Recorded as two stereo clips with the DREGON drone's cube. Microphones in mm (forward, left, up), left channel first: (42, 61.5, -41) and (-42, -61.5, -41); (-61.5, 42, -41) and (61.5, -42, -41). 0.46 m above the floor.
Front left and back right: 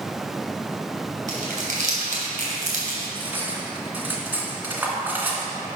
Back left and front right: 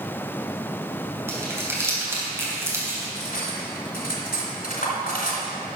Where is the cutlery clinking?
155° left, 2.5 m.